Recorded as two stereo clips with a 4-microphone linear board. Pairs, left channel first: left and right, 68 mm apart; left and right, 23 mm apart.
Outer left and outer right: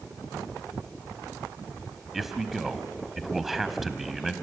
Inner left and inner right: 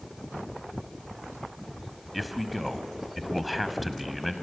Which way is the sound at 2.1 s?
Centre (ahead or behind).